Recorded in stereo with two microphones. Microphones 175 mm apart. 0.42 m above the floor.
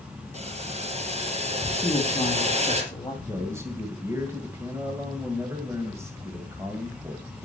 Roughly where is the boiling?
Right.